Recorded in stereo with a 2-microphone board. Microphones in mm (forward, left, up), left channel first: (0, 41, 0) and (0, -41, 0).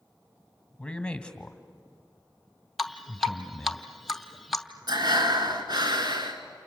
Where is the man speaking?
15° left (ahead or behind), 1.3 m.